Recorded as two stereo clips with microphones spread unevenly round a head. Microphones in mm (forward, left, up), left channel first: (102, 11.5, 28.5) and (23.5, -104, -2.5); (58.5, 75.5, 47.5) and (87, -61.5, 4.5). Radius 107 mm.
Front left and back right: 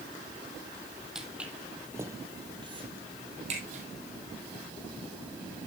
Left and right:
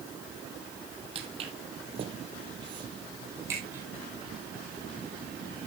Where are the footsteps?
25° right, 2 m; by 3.8 s 175° right, 2.5 m.